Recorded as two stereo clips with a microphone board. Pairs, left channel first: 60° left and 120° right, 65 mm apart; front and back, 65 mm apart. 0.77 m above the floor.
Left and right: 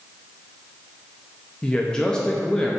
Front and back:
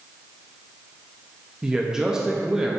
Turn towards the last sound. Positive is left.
turn(degrees=115)